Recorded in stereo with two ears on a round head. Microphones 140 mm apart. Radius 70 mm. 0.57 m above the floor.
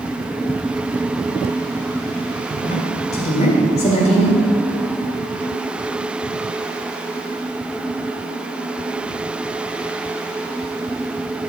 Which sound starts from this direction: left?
A woman speaking, at 2.6 s.